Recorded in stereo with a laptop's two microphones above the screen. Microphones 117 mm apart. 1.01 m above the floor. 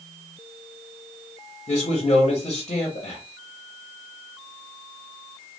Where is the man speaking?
65° left (ahead or behind), 1.0 m.